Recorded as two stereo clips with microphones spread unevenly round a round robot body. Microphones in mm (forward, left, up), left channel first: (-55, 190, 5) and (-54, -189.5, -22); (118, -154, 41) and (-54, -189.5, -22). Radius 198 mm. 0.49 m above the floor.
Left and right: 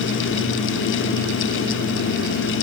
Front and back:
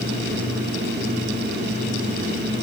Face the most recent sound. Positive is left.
No sound to turn to.